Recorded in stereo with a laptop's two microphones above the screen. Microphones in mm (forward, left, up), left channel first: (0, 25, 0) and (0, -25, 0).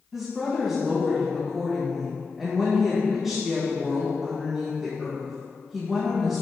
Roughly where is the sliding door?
I don't hear a sliding door.